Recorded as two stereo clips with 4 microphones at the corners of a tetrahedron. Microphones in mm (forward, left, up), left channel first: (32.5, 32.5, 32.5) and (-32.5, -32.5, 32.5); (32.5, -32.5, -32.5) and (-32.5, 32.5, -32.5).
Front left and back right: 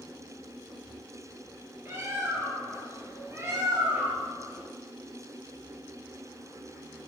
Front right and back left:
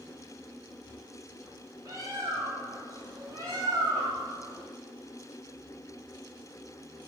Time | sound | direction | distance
1.9 | a bird | 175° left | 1.4 m